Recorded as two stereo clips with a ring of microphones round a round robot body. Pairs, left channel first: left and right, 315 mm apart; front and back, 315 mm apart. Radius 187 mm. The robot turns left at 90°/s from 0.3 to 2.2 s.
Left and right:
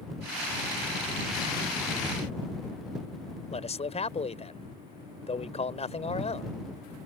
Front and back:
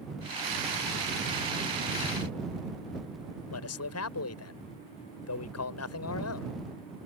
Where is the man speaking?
25° left.